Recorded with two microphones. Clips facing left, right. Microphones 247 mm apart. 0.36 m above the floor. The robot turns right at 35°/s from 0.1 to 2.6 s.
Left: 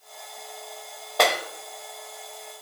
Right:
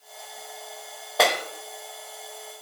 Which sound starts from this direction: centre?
A clap, at 1.2 s.